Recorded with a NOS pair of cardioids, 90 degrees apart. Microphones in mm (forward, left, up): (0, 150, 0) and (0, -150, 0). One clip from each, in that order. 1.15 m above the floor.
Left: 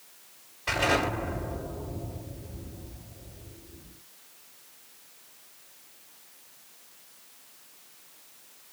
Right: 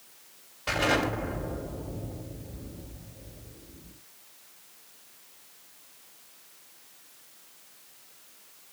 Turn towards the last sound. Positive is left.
turn(degrees=-25)